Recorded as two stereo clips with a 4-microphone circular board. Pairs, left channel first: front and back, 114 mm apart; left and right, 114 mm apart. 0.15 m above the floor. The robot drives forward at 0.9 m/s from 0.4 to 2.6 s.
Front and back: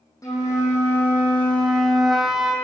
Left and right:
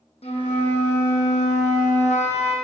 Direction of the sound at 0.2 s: 60° left.